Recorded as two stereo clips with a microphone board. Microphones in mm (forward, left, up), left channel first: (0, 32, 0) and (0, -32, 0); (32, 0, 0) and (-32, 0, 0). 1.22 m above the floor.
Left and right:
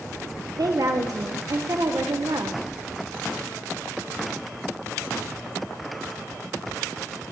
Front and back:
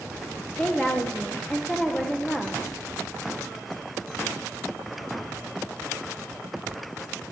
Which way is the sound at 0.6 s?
75° right.